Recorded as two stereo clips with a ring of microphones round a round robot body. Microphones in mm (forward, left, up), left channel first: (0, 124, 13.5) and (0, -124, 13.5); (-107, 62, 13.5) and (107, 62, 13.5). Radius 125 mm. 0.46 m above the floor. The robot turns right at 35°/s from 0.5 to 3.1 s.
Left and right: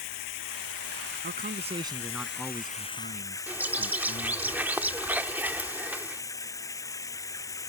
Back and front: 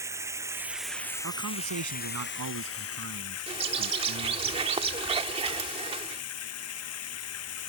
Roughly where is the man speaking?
Ahead right.